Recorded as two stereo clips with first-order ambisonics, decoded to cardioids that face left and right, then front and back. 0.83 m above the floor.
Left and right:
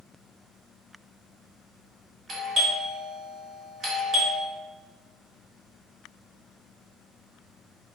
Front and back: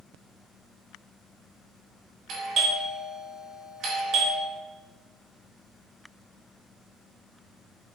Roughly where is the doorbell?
Behind right.